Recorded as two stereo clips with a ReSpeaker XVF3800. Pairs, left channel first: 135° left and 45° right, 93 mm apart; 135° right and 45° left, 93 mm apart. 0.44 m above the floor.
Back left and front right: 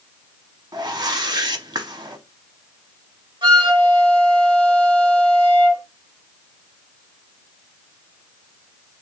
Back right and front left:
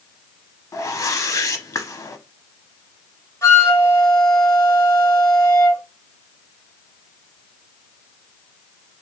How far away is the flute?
About 1.5 m.